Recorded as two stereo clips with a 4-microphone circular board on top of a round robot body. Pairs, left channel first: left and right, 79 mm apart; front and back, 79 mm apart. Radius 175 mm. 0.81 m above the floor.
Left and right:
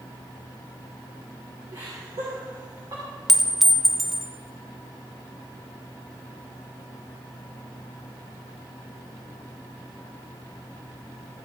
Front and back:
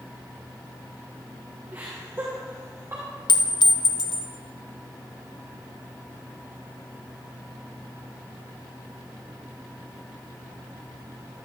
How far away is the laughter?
About 3 m.